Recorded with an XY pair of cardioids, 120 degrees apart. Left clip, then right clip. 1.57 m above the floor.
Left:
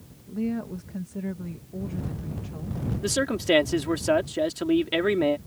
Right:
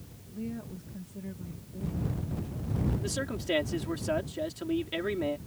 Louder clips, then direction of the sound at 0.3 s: Left 9 dB; 55° left.